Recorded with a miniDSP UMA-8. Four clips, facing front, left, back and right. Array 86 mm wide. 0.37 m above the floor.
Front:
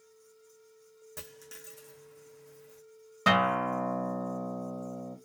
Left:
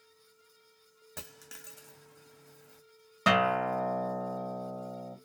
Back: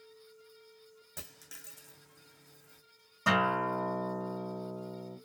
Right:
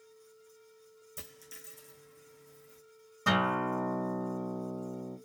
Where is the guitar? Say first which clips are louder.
Left 3 dB, front 3 dB; 50° left, 1.7 m.